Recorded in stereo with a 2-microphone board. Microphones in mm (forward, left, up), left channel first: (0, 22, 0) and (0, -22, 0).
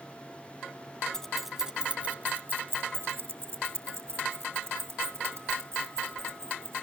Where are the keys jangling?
15° left (ahead or behind), 0.6 m; by 6.8 s 80° right, 3 m.